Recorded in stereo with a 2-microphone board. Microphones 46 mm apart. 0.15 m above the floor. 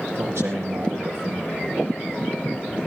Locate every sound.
0.1 s a man speaking: 70° right (ahead or behind), 5.5 m